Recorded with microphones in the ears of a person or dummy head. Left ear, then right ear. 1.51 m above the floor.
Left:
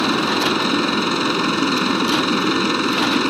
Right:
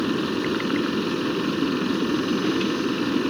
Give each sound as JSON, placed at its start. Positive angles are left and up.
{"t": 0.0, "sound": "a machine running", "side_deg": 65}